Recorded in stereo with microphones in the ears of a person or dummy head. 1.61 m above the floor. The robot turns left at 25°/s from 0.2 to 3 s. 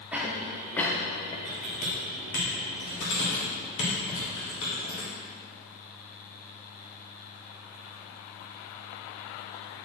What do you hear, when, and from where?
0.1 s a cough: 5° right (ahead or behind), 1.1 m; by 1.4 s 25° left (ahead or behind), 1.1 m
1.4 s typing on a keyboard: 35° left (ahead or behind), 2.5 m; by 5.1 s 70° left (ahead or behind), 2.5 m